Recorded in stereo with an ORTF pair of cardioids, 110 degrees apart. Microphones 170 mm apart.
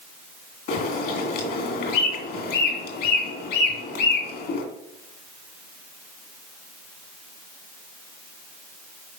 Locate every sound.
0.7 s a bird: 70° left, 2 m